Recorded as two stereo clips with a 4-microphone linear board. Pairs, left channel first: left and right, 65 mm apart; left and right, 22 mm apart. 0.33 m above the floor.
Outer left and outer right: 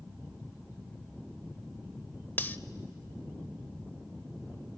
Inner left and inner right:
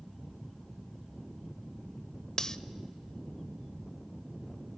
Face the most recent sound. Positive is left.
turn(degrees=30)  # may be behind; listen again after turning